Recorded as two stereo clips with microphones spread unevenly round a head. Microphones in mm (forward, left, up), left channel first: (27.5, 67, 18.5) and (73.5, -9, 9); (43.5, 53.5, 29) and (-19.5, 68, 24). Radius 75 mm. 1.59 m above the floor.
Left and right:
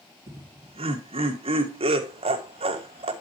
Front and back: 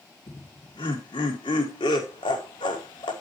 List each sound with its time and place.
0.3 s laughter: 45° right, 1.7 m